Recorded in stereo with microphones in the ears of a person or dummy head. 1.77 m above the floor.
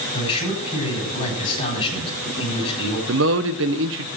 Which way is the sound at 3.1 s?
65° right (ahead or behind).